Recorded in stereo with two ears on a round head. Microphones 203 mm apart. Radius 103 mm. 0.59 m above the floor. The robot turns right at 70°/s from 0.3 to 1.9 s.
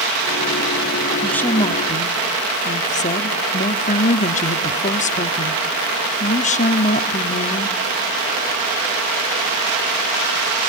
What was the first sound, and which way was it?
A woman speaking, straight ahead.